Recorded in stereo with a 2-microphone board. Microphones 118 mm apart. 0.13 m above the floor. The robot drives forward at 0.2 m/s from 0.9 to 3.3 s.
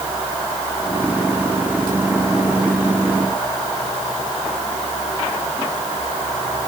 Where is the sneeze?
I don't hear a sneeze.